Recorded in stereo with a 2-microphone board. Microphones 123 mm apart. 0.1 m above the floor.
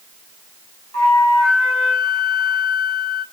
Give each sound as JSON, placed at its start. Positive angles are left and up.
{"t": 0.9, "sound": "a flute", "side_deg": 25, "distance_m": 3.0}